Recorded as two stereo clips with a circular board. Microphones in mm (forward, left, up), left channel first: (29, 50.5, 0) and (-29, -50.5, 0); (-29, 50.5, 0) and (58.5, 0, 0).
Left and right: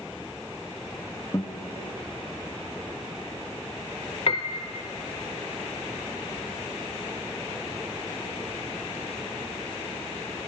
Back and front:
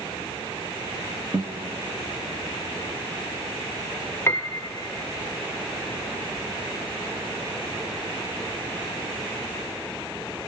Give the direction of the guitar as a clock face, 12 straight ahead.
12 o'clock.